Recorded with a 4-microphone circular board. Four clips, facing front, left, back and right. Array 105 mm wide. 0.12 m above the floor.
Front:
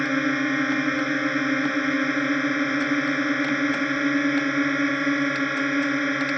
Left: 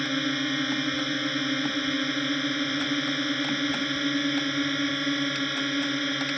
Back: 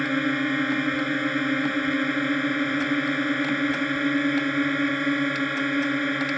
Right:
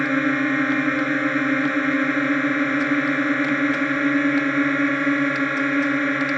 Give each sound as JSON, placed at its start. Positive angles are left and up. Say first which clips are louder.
{"t": 0.0, "sound": "a drone", "louder": "right 8 dB, front 1 dB", "azimuth_deg": -75}